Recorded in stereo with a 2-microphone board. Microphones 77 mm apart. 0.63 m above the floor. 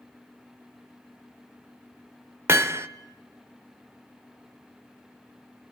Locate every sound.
2.5 s hammering: 35° right (ahead or behind), 0.7 m